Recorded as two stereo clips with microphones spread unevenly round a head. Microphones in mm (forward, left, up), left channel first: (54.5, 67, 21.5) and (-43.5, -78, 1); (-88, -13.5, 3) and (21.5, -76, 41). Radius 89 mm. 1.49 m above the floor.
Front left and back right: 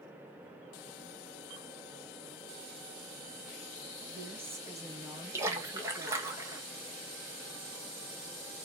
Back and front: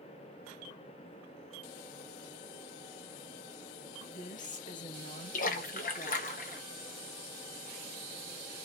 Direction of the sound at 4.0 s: 155° left.